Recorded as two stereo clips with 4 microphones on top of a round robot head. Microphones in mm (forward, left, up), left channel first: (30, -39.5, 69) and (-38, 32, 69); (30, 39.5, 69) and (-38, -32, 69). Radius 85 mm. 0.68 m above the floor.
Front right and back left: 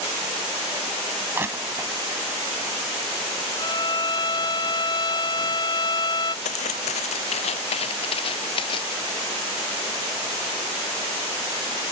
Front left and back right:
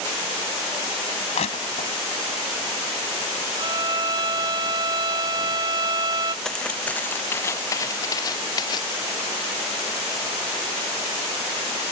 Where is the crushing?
65° left.